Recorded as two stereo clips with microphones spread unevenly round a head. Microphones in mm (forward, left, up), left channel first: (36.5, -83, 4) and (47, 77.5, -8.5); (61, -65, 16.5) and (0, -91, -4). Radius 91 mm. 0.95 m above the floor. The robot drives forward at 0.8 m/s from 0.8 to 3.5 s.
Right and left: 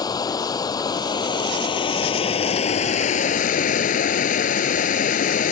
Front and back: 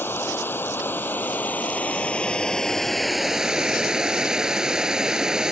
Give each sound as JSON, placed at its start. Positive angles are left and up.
{"t": 0.0, "sound": "running water", "azimuth_deg": -30}